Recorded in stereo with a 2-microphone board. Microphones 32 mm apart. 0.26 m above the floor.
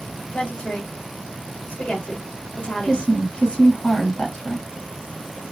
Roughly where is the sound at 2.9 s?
Left.